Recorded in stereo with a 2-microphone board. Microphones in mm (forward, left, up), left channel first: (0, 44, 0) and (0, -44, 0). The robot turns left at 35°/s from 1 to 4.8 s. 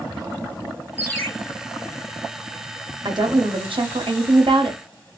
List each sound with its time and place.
1.0 s a ringtone: 25° left (ahead or behind), 0.9 m
3.0 s a woman speaking: 55° right, 0.5 m; by 4.8 s 115° right, 0.5 m